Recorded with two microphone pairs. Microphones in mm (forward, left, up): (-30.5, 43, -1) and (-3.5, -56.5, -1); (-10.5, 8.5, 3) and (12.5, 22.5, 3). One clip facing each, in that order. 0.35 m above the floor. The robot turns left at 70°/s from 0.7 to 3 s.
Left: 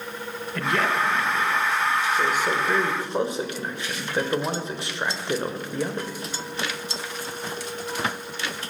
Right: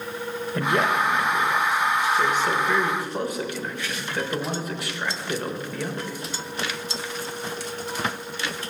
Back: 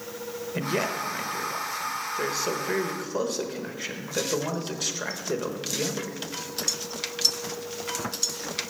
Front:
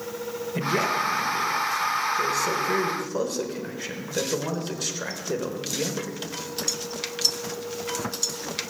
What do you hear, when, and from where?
0.6 s a man speaking: 75° right, 0.9 m; by 6.2 s 125° left, 0.9 m